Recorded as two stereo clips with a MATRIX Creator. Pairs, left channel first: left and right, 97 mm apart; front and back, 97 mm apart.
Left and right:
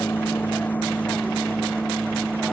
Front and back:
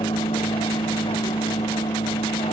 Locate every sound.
0.0 s a vehicle: 20° left; by 2.5 s straight ahead